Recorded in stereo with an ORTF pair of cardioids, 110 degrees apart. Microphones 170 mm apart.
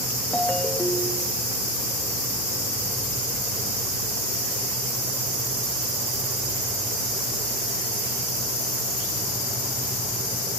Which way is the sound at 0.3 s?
5° left.